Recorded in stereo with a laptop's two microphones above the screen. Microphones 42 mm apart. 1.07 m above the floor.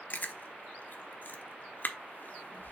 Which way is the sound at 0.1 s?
45° left (ahead or behind).